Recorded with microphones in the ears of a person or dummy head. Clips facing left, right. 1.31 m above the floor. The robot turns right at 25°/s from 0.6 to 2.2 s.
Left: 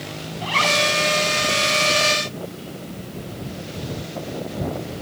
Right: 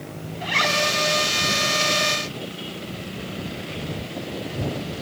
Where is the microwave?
No microwave in this recording.